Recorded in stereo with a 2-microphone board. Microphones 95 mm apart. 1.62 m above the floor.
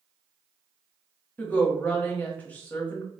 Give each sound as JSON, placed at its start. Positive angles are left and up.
{"t": 1.4, "sound": "a woman speaking", "side_deg": 15, "distance_m": 1.0}